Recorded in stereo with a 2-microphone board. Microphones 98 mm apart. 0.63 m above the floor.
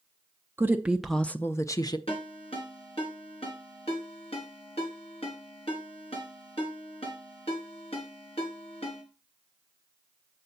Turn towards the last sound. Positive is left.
turn(degrees=80)